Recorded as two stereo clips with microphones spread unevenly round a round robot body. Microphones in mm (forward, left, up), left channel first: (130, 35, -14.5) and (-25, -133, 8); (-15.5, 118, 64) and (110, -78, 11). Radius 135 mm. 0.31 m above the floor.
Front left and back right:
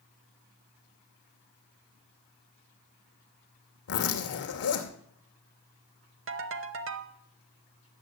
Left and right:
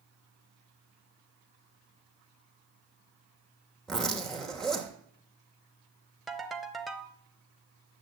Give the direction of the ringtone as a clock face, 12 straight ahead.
5 o'clock.